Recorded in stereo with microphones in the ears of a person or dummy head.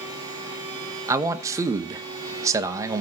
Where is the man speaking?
20° right (ahead or behind), 1.0 m.